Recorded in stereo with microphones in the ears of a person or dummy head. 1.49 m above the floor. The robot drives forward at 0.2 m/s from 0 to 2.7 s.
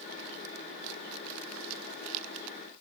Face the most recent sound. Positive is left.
No sound to turn to.